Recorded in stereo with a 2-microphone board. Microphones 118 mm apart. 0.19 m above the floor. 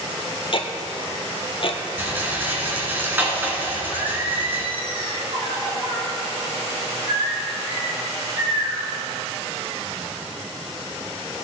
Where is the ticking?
50° left (ahead or behind), 1.2 m.